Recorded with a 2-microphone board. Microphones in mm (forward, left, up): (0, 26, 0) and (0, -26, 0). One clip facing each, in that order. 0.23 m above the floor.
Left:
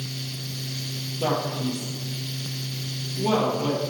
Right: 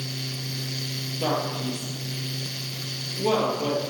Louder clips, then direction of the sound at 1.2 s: Left 1 dB; 15° right (ahead or behind).